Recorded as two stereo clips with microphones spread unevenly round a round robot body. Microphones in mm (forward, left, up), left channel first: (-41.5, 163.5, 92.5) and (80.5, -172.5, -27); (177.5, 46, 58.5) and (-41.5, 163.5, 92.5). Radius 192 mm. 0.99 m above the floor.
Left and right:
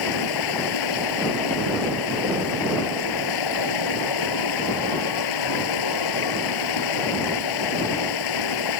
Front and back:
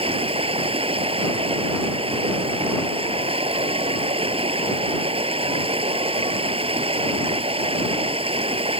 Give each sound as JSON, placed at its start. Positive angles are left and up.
{"t": 0.0, "sound": "running water", "azimuth_deg": 85}